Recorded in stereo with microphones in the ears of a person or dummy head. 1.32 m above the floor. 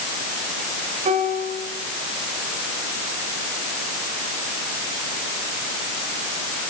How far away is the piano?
About 5 m.